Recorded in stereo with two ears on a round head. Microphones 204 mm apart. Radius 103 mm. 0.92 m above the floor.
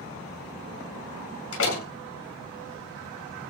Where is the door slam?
65° left (ahead or behind), 8 m.